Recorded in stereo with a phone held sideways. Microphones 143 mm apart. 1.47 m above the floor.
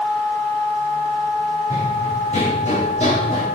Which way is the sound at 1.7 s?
60° left (ahead or behind).